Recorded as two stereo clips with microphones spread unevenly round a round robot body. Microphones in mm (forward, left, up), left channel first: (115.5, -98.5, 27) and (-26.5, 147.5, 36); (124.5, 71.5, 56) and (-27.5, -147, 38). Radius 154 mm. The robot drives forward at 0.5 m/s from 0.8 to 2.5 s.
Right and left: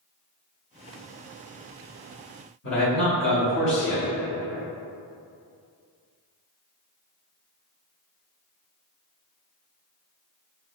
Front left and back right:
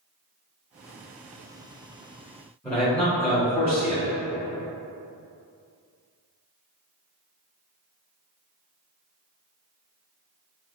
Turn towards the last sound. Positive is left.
turn(degrees=-30)